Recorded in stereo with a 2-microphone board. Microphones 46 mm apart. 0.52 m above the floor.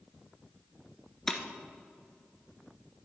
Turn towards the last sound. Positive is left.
turn(degrees=10)  # may be behind; listen again after turning